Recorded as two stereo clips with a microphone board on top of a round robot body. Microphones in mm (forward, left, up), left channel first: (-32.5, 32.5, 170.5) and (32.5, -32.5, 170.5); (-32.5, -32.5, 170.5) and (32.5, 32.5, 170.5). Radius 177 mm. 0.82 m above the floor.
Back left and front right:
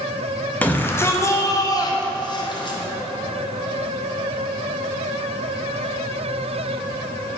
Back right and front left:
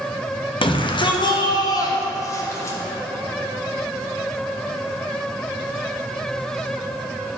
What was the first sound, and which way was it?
A shout, 150° right.